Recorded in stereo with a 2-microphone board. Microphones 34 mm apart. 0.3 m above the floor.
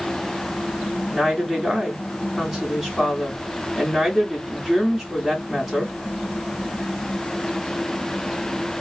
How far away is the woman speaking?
About 2 m.